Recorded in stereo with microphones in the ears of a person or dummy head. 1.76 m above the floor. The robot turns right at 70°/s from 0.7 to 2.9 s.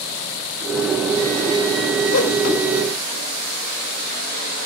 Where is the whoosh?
65° left (ahead or behind), 1.4 m; by 2.4 s 55° left (ahead or behind), 1.4 m.